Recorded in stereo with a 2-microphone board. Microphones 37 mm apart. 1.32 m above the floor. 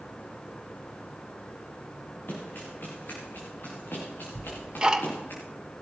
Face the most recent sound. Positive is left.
turn(degrees=-15)  # may be behind; listen again after turning